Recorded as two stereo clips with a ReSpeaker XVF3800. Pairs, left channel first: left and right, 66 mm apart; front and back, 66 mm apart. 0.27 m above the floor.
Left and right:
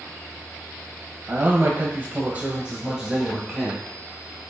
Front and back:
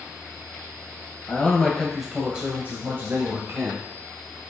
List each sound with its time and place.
1.3 s a man speaking: 60° right, 2.0 m; by 3.8 s 175° right, 2.5 m